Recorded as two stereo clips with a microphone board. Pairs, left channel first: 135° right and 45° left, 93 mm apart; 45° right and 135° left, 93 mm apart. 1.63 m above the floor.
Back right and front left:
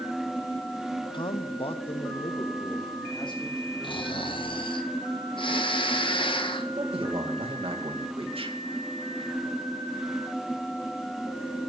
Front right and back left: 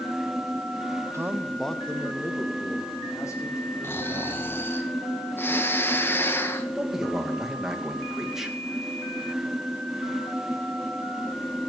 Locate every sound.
1.1 s a man speaking: 165° right, 0.9 m; by 4.7 s 95° right, 5 m
3.8 s snoring: 110° right, 1.5 m
6.8 s a man speaking: 50° left, 2.5 m